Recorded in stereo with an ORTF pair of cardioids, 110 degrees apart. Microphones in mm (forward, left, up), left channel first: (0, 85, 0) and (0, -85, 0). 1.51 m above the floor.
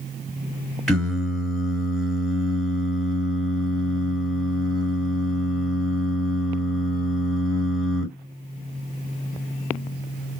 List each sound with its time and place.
0.9 s singing: straight ahead, 2 m